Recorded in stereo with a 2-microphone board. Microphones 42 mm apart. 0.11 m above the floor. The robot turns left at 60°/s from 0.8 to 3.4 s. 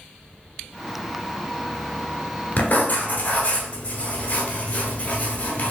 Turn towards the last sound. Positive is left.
turn(degrees=50)